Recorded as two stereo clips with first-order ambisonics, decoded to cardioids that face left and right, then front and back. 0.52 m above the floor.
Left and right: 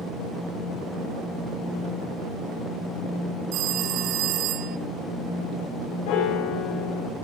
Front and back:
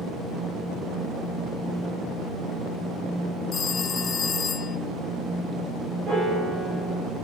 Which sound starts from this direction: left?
A piano, at 6.1 s.